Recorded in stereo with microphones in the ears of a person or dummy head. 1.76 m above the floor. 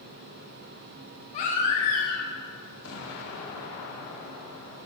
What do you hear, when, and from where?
1.3 s a baby crying: 40° left (ahead or behind), 1.2 m
2.8 s an explosion: 80° left, 1.5 m